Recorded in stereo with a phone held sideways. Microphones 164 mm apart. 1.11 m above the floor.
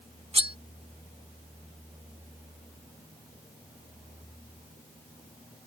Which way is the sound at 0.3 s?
40° right (ahead or behind).